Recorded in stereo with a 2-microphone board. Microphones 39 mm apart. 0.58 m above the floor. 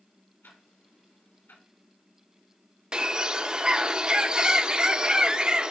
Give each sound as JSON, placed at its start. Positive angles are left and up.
{"t": 0.4, "sound": "ticking", "side_deg": 75, "distance_m": 4.5}
{"t": 2.9, "sound": "a bird", "side_deg": -25, "distance_m": 0.8}